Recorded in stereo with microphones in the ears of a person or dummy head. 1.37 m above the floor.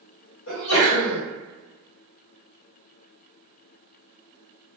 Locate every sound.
0.5 s a sneeze: 85° left, 1.5 m